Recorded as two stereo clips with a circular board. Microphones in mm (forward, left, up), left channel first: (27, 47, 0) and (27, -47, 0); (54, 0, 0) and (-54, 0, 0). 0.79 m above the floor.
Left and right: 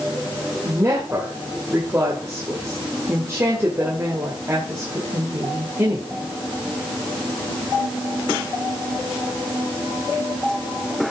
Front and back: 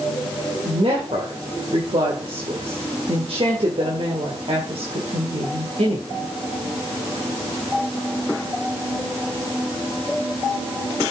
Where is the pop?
I don't hear a pop.